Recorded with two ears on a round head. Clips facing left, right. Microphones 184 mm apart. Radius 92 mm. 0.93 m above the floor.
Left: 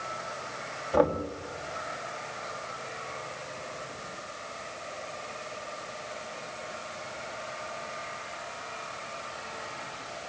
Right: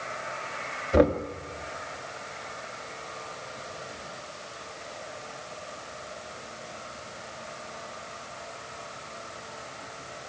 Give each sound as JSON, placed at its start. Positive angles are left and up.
{"t": 0.9, "sound": "knocking", "side_deg": -30, "distance_m": 1.4}